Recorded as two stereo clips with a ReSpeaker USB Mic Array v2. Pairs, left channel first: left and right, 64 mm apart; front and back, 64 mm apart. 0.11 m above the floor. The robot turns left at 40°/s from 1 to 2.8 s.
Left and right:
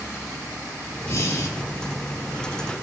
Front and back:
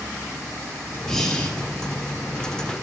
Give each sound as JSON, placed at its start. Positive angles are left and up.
{"t": 1.1, "sound": "breathing", "azimuth_deg": 80, "distance_m": 2.0}